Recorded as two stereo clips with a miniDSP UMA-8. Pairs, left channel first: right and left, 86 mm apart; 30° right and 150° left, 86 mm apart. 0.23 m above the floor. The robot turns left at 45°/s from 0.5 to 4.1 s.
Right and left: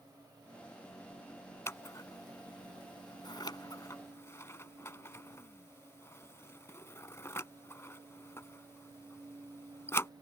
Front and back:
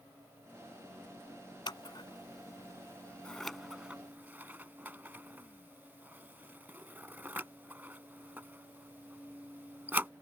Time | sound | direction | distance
1.7 | scissors | 35° right | ?